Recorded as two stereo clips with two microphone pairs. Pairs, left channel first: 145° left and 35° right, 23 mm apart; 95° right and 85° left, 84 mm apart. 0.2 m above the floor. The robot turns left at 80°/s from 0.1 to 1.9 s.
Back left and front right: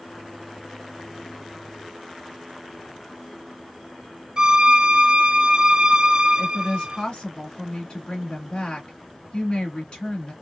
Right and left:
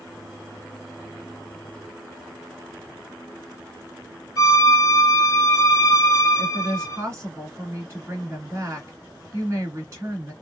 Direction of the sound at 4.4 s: 75° right.